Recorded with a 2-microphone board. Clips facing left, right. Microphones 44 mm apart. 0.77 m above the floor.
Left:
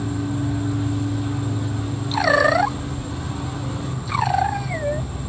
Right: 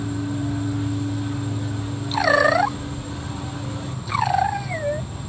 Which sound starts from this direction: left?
An insect, at 0.0 s.